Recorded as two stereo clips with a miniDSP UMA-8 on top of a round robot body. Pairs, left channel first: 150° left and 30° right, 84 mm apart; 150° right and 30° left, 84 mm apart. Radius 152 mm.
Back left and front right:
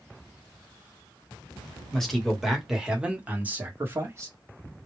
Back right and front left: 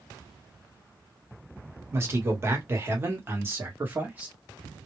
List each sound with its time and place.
1.9 s a man speaking: 70° left, 1.8 m; by 4.3 s 20° right, 1.7 m